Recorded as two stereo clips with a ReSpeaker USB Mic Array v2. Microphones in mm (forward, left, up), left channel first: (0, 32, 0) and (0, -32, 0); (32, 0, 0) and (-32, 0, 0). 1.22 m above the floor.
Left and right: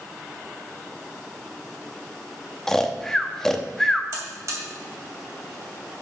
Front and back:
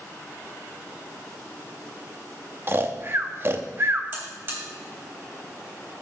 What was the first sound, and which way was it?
Snoring, 170° left.